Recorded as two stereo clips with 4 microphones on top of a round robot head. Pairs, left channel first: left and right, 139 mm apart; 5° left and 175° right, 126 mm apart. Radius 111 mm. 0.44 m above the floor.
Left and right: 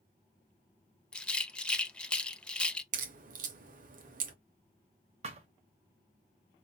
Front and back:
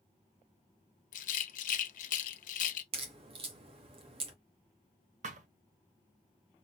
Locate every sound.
1.1 s a rattle: 5° left, 0.5 m
2.9 s a crack: 125° right, 0.5 m
5.2 s a thud: 140° right, 0.6 m